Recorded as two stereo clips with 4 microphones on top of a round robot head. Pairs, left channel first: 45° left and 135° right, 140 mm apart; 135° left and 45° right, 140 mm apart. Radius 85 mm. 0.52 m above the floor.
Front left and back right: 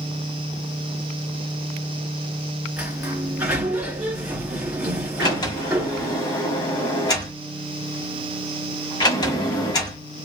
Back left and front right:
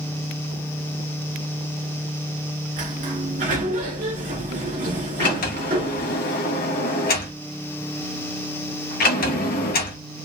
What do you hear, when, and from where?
2.8 s a sliding door: 55° right, 2 m
5.2 s a sliding door: 110° left, 1.3 m